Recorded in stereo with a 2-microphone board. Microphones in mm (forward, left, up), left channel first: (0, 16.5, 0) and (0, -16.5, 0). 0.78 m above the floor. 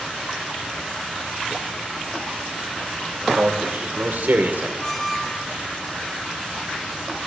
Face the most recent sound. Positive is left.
turn(degrees=15)  # may be behind; listen again after turning